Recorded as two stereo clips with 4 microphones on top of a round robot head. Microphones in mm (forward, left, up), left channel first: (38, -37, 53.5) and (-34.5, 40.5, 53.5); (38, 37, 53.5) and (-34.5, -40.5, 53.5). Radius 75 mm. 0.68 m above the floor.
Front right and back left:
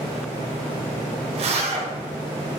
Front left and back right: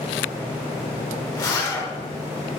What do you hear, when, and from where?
1.3 s a zipper: 105° left, 7 m